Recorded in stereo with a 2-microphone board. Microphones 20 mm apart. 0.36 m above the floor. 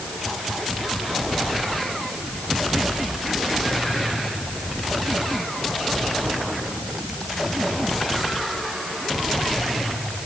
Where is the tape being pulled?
I don't hear tape being pulled.